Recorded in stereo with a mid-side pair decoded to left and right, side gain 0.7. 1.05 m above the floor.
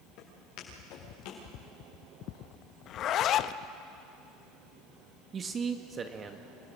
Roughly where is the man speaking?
Ahead right.